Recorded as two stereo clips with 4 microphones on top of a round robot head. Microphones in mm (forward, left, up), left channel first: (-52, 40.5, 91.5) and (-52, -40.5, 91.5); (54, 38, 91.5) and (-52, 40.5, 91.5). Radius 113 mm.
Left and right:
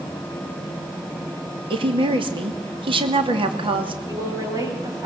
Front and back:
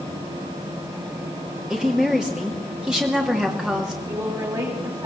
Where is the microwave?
I don't hear a microwave.